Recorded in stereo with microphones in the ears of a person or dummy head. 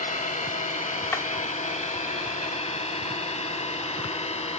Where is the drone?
30° left (ahead or behind); by 4.6 s 25° left (ahead or behind).